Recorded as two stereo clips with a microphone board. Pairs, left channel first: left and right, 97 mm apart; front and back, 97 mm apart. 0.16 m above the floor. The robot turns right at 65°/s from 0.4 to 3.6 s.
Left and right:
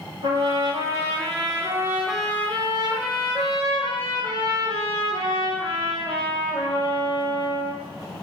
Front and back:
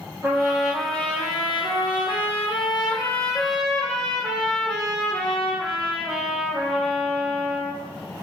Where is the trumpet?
120° right, 5 m; by 7.8 s 90° left, 5 m.